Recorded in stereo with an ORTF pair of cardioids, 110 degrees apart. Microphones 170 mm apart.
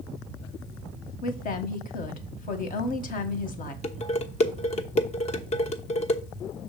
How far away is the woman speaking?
About 1.4 m.